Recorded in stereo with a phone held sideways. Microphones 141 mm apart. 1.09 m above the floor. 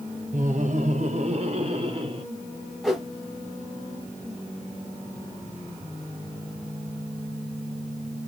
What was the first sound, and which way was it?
Laughter, 60° right (ahead or behind).